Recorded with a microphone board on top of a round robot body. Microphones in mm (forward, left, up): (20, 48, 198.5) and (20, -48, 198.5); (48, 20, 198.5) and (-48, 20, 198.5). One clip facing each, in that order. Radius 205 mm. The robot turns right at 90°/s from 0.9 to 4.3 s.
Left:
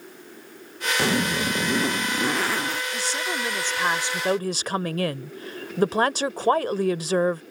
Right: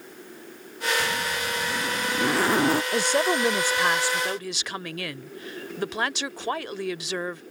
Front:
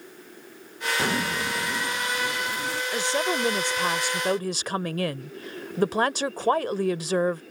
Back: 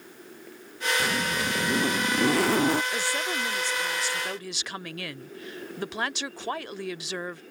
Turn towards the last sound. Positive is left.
turn(degrees=45)